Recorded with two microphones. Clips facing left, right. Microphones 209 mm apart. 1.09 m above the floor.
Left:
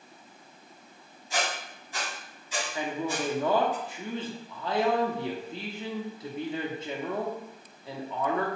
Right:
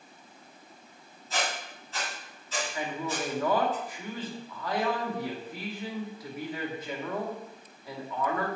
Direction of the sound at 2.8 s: 25° left (ahead or behind).